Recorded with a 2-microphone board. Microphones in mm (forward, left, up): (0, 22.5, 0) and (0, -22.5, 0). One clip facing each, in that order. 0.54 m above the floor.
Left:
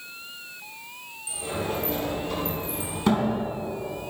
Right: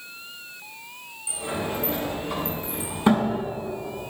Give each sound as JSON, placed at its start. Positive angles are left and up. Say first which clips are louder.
{"t": 1.3, "sound": "a sliding door", "louder": "right 1 dB", "side_deg": -20, "distance_m": 3.0}